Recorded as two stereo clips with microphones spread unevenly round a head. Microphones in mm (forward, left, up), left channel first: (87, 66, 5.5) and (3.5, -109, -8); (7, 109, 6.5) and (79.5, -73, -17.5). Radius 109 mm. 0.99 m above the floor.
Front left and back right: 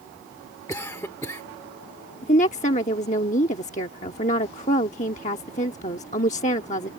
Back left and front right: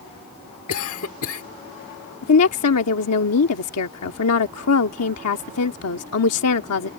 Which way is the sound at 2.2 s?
125° left.